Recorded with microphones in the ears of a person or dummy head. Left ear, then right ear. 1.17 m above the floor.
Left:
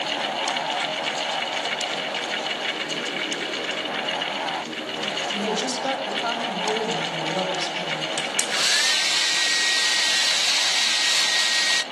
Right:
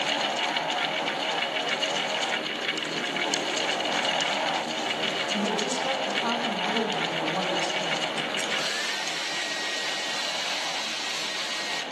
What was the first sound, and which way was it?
A woman speaking, 60° left (ahead or behind).